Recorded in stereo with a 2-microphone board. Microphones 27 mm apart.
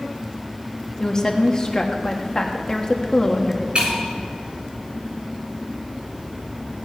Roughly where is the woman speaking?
Left.